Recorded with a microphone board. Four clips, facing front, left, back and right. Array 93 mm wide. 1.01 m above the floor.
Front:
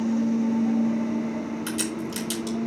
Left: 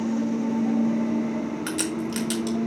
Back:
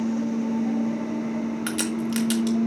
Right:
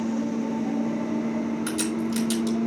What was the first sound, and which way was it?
A crack, 155° left.